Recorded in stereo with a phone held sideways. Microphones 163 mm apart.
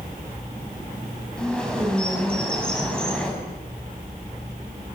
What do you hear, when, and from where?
1.4 s a bird: 5° left (ahead or behind), 6.5 m